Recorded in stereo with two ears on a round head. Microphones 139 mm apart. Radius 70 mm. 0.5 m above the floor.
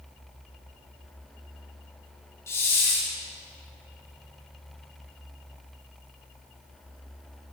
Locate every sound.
2.5 s a hiss: 15° left (ahead or behind), 3 m